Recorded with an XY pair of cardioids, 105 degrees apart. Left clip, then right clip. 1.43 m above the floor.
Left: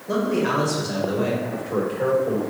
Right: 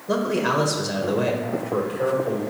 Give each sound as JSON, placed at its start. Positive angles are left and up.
{"t": 0.1, "sound": "a man speaking", "azimuth_deg": -20, "distance_m": 1.3}
{"t": 1.4, "sound": "a man speaking", "azimuth_deg": 0, "distance_m": 2.0}